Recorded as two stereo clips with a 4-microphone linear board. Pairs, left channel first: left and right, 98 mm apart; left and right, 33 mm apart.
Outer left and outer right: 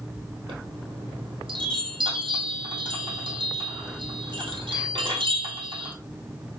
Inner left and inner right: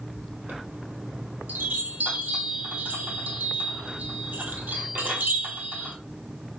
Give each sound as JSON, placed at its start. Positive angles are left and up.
{"t": 0.5, "sound": "a chime", "side_deg": -70, "distance_m": 1.7}